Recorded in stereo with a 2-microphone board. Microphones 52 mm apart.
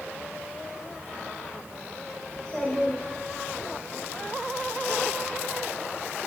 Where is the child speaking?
10° left (ahead or behind), 3.5 m; by 3.8 s 45° left (ahead or behind), 4 m.